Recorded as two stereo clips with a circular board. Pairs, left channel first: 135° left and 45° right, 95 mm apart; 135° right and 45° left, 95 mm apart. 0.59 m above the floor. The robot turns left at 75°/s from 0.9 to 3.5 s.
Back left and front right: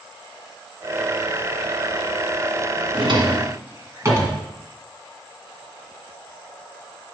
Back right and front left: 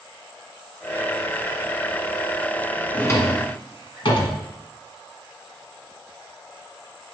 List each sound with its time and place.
2.9 s a drawer: 60° right, 1.5 m; by 4.4 s 105° right, 1.5 m